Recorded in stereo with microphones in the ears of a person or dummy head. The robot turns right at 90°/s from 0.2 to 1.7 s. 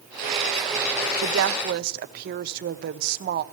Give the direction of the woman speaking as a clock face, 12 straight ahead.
4 o'clock.